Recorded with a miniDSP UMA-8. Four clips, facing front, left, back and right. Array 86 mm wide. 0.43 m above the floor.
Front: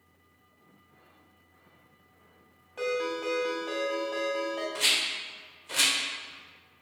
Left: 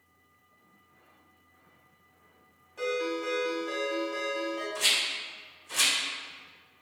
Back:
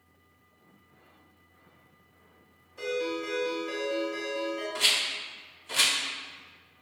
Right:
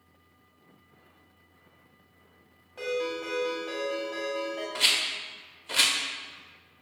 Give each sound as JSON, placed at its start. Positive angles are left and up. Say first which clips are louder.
{"t": 2.8, "sound": "a ringtone", "louder": "even, front 1 dB", "azimuth_deg": -20, "distance_m": 1.6}
{"t": 4.8, "sound": "a rattle", "louder": "right 1 dB, even", "azimuth_deg": -90, "distance_m": 0.9}